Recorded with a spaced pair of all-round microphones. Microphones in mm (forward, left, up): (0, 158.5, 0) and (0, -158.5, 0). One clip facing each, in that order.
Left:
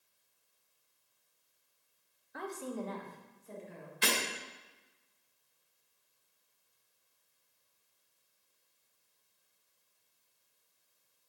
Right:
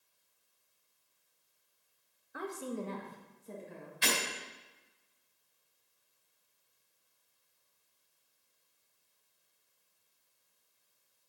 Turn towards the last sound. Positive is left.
turn(degrees=65)  # may be behind; listen again after turning